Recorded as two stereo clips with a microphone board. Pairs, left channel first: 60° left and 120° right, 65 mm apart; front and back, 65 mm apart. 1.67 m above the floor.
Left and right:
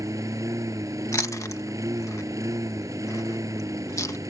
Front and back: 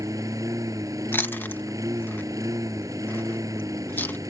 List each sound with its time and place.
0.0 s a lawn mower: 150° right
1.1 s chewing: 50° left